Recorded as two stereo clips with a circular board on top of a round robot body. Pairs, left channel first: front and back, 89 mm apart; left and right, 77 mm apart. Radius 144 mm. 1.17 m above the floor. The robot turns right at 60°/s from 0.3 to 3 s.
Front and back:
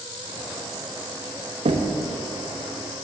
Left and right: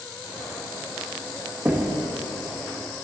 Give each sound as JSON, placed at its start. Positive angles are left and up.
{"t": 1.6, "sound": "knocking", "azimuth_deg": -160, "distance_m": 0.8}